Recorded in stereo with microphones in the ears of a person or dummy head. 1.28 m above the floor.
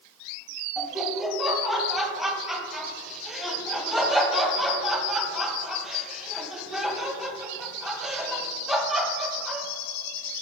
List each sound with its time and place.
0.8 s laughter: centre (ahead or behind), 0.8 m